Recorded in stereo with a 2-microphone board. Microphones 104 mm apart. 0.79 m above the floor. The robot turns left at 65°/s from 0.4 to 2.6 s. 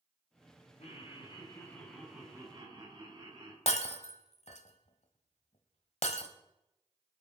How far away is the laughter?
About 6.5 m.